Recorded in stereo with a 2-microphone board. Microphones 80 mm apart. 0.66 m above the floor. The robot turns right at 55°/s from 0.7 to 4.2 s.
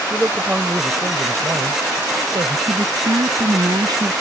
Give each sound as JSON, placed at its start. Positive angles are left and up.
{"t": 0.1, "sound": "a man speaking", "azimuth_deg": -160}
{"t": 2.7, "sound": "a woman speaking", "azimuth_deg": -140}